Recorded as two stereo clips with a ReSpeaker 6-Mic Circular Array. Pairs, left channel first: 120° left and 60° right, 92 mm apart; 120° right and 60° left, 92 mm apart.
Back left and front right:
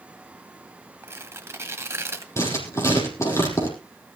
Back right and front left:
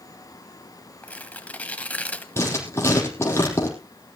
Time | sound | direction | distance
1.0 | tearing paper | 65° right | 1.2 m
2.4 | writing | 175° left | 5.5 m